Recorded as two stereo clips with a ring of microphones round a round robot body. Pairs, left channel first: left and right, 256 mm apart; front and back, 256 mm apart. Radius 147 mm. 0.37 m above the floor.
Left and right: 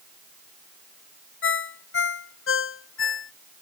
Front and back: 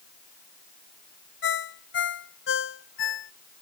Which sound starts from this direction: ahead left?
A ringtone, at 1.4 s.